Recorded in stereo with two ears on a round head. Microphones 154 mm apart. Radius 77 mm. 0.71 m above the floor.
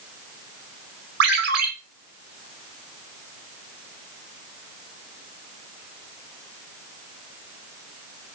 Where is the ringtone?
65° right (ahead or behind), 4 m.